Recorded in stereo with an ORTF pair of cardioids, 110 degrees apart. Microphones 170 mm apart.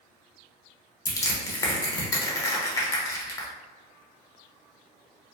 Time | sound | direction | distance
1.1 | crushing | 20° left | 0.9 m